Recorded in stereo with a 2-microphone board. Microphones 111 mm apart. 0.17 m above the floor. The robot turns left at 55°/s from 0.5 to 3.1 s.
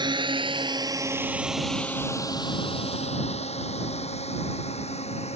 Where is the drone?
45° right (ahead or behind); by 5.4 s 75° left (ahead or behind).